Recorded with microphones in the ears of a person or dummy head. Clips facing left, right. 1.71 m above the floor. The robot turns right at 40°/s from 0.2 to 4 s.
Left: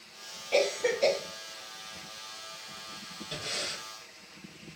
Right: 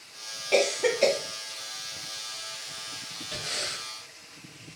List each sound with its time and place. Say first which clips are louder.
0.5 s a cough: right 3 dB; 70° right (ahead or behind), 0.7 m; by 1.2 s 80° right, 0.7 m
3.3 s breathing: right 1 dB; 25° left (ahead or behind), 2.5 m; by 3.8 s 45° left (ahead or behind), 2.5 m